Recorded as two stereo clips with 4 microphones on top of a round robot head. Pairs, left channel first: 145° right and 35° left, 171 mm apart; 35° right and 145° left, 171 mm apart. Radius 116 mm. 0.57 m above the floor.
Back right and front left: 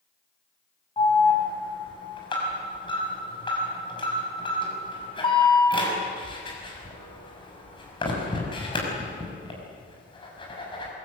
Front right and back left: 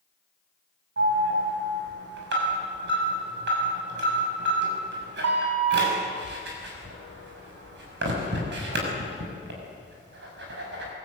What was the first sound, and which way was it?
An alarm, 155° left.